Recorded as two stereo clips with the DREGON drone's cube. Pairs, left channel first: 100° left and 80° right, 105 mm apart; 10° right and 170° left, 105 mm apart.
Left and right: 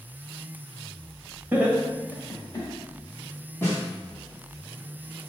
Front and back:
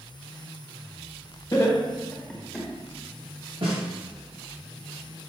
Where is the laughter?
20° right, 1.2 m; by 2.7 s 85° left, 1.3 m.